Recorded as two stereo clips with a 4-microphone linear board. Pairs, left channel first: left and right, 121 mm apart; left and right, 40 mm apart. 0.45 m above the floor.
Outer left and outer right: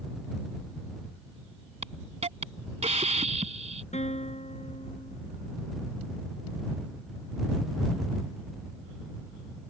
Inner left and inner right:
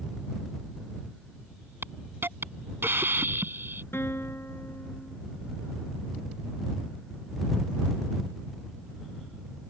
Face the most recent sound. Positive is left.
turn(degrees=70)  # may be behind; listen again after turning